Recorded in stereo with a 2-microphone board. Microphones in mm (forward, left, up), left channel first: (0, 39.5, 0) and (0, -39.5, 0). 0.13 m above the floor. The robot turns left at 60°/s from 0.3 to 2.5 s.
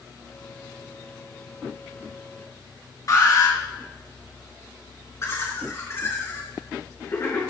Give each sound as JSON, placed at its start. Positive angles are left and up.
{"t": 3.1, "sound": "an alarm", "side_deg": 45, "distance_m": 2.0}
{"t": 5.2, "sound": "laughter", "side_deg": 40, "distance_m": 1.4}